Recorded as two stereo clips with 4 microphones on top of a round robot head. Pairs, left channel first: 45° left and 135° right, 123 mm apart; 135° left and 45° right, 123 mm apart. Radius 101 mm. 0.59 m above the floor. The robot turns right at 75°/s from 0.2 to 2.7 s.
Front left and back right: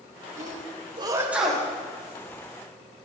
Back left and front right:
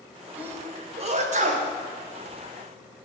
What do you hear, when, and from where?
0.4 s a sneeze: 125° right, 2.5 m; by 1.7 s 25° right, 2.5 m